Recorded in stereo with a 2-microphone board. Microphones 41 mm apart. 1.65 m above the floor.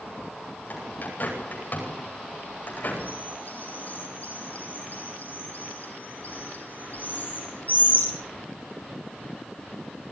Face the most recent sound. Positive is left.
turn(degrees=45)  # may be behind; listen again after turning